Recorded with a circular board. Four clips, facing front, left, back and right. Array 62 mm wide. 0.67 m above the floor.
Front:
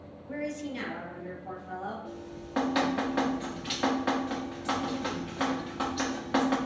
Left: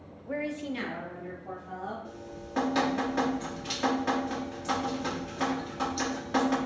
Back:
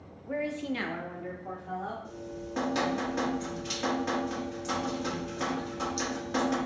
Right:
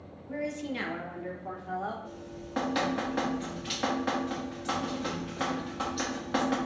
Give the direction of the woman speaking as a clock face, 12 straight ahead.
8 o'clock.